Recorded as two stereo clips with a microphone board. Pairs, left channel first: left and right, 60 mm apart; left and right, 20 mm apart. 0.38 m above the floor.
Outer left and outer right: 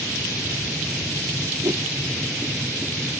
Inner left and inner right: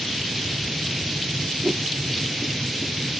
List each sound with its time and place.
1.6 s a whoosh: 80° right